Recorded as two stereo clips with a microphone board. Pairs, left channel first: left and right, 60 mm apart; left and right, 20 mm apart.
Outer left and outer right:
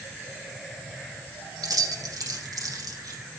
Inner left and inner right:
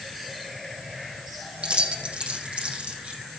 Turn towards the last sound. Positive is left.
turn(degrees=-75)  # may be behind; listen again after turning